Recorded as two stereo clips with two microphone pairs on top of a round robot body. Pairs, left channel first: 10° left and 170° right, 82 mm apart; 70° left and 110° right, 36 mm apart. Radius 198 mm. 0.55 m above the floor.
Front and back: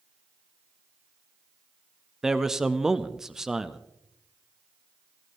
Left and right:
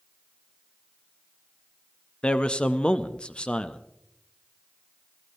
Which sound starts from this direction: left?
A man speaking, at 2.2 s.